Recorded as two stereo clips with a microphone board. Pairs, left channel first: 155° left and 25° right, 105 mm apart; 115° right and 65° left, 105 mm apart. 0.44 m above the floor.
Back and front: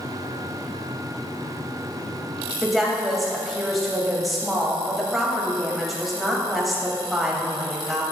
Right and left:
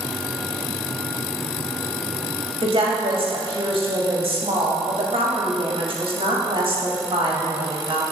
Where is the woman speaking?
65° left, 2.5 m.